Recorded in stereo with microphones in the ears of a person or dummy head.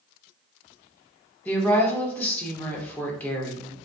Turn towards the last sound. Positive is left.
turn(degrees=10)  # may be behind; listen again after turning